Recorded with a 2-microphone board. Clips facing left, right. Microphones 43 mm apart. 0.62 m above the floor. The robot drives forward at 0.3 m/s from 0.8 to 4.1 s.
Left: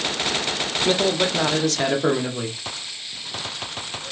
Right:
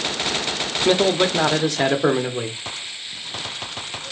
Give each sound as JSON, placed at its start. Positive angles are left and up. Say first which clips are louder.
{"t": 0.8, "sound": "a man speaking", "louder": "right 4 dB", "side_deg": -15, "distance_m": 0.6}